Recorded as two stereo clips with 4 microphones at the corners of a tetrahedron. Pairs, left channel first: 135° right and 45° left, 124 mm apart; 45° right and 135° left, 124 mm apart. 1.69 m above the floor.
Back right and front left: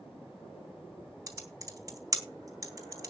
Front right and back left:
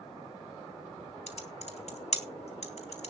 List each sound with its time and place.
1.3 s typing on a keyboard: 20° right, 3 m